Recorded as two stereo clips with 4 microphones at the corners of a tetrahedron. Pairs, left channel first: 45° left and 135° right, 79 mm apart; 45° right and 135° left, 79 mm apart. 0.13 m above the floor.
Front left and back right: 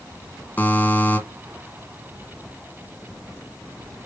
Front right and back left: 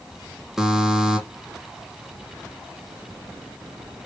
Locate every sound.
0.6 s a buzzer: 60° left, 1.2 m